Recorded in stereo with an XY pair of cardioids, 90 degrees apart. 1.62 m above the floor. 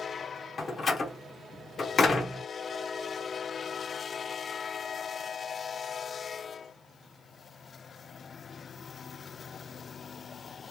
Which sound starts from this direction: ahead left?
A door slam, at 0.6 s.